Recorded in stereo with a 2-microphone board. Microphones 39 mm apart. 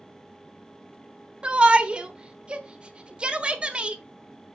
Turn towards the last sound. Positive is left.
turn(degrees=-25)  # may be behind; listen again after turning